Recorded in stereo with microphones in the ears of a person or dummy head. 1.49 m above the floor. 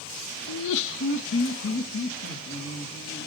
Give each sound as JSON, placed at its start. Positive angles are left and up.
{"t": 0.5, "sound": "laughter", "side_deg": 75, "distance_m": 0.6}